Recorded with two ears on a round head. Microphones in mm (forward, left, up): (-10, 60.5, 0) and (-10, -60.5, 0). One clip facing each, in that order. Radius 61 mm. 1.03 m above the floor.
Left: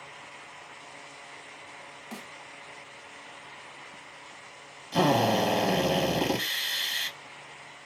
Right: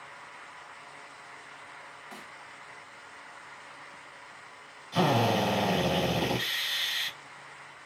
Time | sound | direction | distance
2.1 | a snare drum | 45° left (ahead or behind) | 0.6 m
4.9 | a drill | 50° left (ahead or behind) | 1.2 m